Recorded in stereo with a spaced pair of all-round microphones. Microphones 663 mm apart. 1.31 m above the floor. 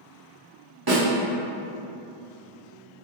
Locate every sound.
0.9 s a snare drum: 35° right (ahead or behind), 1.0 m